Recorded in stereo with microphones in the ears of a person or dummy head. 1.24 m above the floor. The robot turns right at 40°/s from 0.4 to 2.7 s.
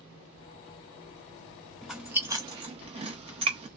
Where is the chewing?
Centre (ahead or behind), 1.2 m; by 3.7 s 35° right (ahead or behind), 1.2 m.